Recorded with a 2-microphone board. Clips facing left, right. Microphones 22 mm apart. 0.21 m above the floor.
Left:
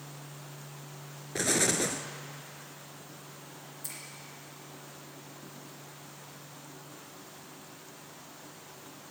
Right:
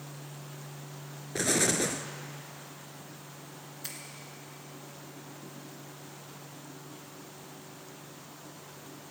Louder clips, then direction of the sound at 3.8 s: Right 2 dB; 30° right (ahead or behind).